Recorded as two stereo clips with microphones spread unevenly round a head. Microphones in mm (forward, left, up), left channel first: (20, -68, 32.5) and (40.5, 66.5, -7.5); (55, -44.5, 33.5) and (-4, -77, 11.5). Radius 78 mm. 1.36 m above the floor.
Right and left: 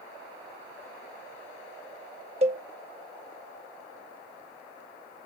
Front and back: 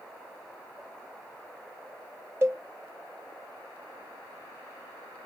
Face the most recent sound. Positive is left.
turn(degrees=130)